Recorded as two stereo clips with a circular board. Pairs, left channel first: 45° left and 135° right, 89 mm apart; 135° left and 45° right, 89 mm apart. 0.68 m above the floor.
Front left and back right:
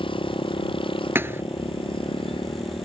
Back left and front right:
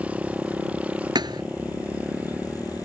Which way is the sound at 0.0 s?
30° left.